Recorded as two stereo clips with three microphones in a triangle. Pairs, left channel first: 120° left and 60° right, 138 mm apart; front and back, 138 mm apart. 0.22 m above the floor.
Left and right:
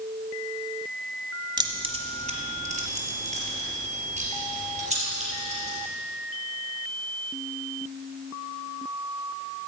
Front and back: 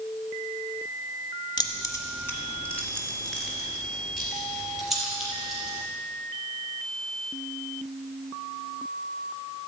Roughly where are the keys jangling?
Ahead right.